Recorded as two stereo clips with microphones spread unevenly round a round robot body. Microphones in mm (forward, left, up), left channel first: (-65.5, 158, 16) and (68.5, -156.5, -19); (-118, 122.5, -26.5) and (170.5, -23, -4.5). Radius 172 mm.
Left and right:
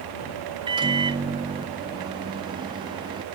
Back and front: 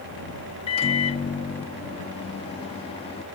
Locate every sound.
0.7 s a microwave: 140° right